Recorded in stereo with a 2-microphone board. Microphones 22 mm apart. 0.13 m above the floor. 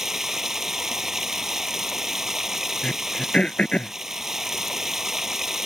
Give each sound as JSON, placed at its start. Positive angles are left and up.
{"t": 0.0, "sound": "running water", "side_deg": -20}
{"t": 2.8, "sound": "throat clearing", "side_deg": 55}